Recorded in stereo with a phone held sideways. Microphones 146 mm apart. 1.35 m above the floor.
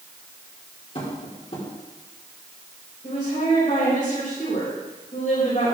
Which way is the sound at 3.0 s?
60° left (ahead or behind).